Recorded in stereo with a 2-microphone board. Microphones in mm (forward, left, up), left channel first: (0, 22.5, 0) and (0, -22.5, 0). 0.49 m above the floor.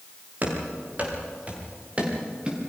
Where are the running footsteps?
35° right (ahead or behind), 7 m; by 2.6 s 20° right (ahead or behind), 5.5 m.